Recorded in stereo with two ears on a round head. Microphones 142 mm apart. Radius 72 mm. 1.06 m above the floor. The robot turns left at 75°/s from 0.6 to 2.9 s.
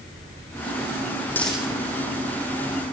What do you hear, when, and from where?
1.3 s a dropped coin: 15° left (ahead or behind), 5.5 m; by 1.7 s 10° right (ahead or behind), 5.5 m